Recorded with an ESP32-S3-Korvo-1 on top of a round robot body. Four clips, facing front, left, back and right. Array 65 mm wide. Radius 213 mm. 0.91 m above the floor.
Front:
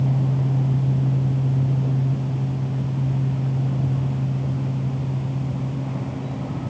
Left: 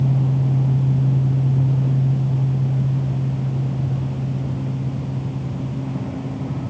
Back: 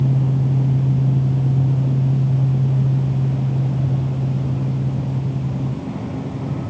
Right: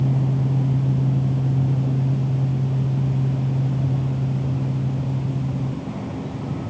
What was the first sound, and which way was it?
Only background noise.